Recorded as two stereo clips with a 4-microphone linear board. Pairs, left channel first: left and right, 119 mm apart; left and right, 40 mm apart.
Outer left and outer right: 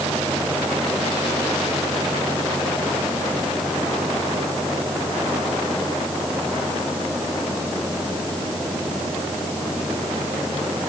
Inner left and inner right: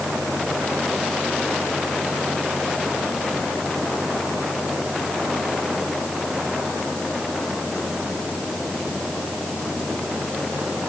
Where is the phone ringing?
No phone ringing in this recording.